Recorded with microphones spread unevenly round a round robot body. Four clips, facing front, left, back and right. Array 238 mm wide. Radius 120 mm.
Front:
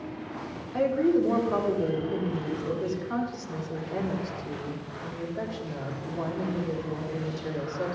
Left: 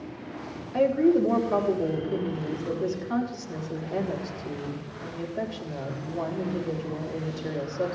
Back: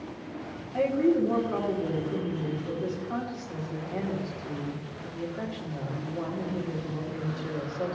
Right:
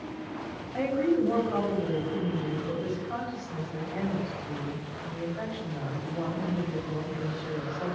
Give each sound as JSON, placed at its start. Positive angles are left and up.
{"t": 0.7, "sound": "a woman speaking", "azimuth_deg": 75, "distance_m": 3.0}